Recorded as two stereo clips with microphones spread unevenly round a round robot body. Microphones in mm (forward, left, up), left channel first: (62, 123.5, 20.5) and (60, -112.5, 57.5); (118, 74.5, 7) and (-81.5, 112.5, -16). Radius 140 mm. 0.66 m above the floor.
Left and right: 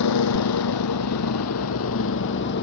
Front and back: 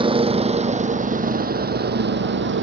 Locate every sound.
0.0 s a vehicle: 105° left; by 2.6 s 145° left